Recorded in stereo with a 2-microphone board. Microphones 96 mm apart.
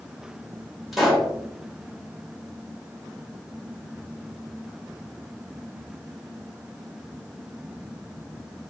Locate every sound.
0.9 s a pop: centre (ahead or behind), 1.2 m